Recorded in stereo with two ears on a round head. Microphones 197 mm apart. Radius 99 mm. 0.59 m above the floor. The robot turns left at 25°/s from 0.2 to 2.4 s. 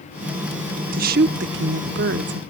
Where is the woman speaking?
50° right; by 2.4 s 90° right.